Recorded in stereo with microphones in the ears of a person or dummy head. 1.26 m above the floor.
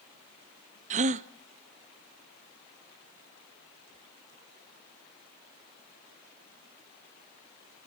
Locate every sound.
0.9 s a gasp: 35° right (ahead or behind), 0.6 m